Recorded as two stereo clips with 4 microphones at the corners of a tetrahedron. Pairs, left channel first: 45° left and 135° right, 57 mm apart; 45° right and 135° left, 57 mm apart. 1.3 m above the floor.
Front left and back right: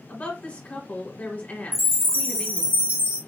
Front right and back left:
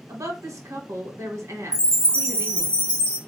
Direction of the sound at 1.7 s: 105° right.